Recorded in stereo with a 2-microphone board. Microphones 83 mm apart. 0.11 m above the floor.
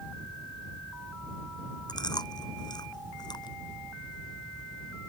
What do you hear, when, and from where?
1.9 s chewing: 60° left (ahead or behind)